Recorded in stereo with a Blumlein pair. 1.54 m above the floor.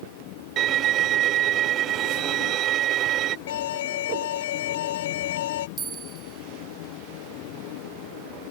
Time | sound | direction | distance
0.6 | a violin | 30° right | ?
3.5 | an alarm | 55° left | ?
5.8 | a bell | 20° right | ?